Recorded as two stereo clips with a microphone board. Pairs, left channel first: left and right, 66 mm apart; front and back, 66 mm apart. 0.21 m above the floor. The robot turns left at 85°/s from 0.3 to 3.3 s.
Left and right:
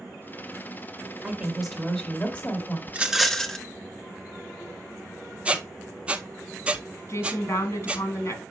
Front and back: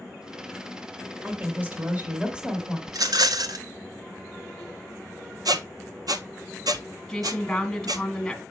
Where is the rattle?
150° right, 0.5 m; by 3.6 s 175° left, 0.5 m.